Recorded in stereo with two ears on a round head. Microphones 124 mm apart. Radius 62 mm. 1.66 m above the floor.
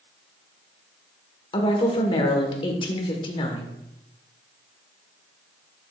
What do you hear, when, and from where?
1.5 s a woman speaking: 35° left (ahead or behind), 1.4 m